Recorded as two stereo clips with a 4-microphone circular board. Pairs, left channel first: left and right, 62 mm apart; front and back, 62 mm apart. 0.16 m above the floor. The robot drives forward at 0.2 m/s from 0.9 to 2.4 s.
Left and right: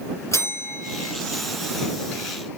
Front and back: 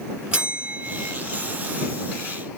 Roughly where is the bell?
Left.